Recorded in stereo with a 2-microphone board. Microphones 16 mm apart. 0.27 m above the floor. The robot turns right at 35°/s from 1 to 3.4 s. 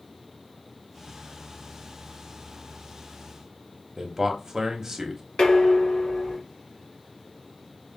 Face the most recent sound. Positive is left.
turn(degrees=60)  # may be behind; listen again after turning